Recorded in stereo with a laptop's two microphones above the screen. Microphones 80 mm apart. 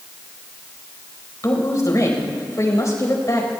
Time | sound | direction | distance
1.4 | a woman speaking | 45° left (ahead or behind) | 4 m